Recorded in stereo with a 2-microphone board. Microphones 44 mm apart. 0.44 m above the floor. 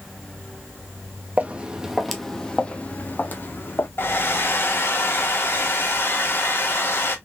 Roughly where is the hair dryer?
Left.